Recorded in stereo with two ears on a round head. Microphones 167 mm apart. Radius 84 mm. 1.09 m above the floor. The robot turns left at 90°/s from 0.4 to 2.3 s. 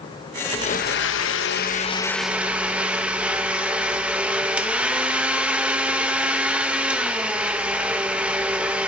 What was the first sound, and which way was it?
A blender, 150° left.